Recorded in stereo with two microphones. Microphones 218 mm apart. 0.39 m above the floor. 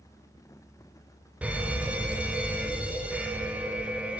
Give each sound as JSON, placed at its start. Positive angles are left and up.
{"t": 1.4, "sound": "a fire alarm", "side_deg": -5, "distance_m": 2.5}